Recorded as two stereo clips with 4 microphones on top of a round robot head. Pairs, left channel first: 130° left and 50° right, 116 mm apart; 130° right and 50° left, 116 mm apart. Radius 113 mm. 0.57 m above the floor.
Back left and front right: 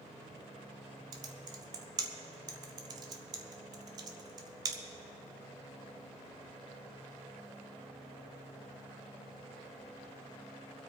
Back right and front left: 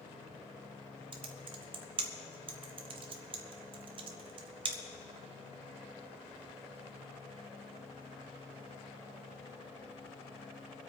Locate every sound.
1.1 s typing on a keyboard: 5° left, 0.7 m